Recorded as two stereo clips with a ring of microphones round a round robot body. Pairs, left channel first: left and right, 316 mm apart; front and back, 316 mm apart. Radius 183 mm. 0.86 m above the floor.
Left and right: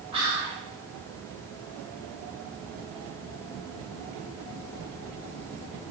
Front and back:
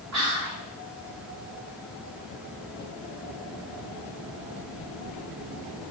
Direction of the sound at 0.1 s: 160° right.